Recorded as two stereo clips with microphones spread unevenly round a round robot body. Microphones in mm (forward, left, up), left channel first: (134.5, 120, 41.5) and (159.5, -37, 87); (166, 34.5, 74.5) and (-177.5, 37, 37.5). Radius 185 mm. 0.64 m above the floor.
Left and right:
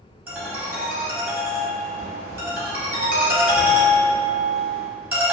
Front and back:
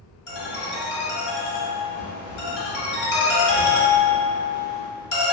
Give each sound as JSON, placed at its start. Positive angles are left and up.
{"t": 0.3, "sound": "a ringtone", "azimuth_deg": -5, "distance_m": 1.7}